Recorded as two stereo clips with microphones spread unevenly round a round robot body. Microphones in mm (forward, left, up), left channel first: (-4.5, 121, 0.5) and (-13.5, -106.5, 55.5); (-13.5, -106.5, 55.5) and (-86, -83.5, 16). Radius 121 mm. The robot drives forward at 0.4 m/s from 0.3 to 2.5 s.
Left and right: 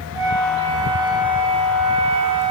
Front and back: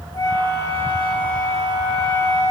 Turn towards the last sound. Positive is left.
turn(degrees=-35)